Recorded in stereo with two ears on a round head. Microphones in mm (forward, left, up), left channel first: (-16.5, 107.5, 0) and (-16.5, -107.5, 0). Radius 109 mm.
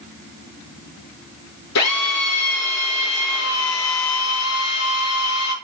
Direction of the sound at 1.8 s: 80° left.